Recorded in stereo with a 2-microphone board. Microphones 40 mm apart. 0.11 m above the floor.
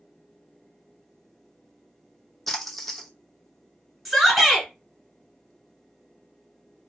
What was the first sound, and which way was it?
A splash, 5° left (ahead or behind).